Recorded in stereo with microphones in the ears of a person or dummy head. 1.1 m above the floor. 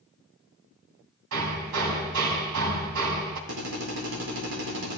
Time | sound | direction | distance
1.3 | hammering | 75° right (ahead or behind) | 3 m
3.5 | a drill | 65° right (ahead or behind) | 4 m